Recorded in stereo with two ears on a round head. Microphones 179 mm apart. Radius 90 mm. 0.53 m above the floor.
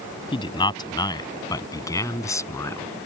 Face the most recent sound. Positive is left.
turn(degrees=15)  # may be behind; listen again after turning